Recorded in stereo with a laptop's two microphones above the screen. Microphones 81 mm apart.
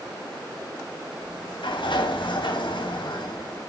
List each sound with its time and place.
1.2 s a sliding door: 75° left (ahead or behind), 3 m